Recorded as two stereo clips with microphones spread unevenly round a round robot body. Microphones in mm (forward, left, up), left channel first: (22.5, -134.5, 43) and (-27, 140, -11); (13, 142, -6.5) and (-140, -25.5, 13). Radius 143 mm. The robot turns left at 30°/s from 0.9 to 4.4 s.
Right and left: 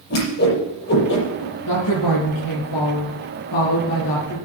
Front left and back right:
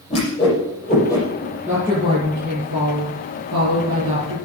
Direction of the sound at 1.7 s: 45° right.